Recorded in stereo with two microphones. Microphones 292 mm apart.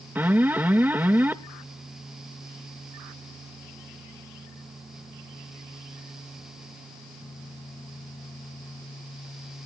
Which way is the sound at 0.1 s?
5° right (ahead or behind).